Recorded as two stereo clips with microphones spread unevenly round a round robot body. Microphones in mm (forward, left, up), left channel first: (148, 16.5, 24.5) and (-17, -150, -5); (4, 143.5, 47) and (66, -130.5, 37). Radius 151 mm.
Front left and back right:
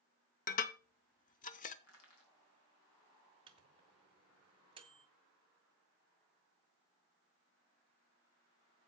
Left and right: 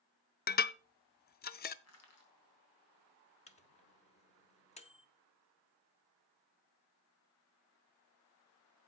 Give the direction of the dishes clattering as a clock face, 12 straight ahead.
9 o'clock.